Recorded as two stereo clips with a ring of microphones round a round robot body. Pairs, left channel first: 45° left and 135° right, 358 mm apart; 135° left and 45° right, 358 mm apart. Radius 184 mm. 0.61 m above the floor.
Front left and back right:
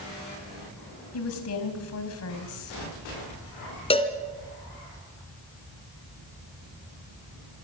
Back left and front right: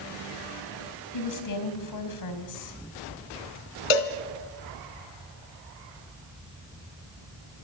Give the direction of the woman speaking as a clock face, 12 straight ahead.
9 o'clock.